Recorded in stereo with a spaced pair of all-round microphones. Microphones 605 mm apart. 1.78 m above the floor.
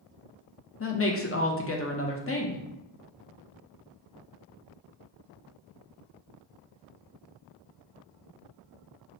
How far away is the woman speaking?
About 0.5 m.